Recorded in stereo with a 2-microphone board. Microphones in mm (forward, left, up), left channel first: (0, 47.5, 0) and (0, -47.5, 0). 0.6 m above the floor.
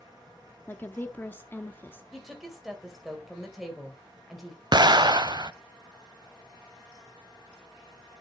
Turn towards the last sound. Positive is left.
turn(degrees=-50)  # may be behind; listen again after turning